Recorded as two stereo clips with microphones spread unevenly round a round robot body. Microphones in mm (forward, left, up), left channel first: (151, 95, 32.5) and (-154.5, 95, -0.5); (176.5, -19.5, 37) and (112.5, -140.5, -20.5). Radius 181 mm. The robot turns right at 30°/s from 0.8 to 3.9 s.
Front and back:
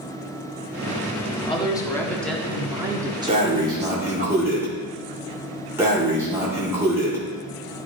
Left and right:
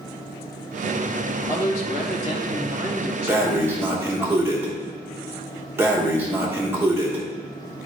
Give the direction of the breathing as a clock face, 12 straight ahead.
4 o'clock.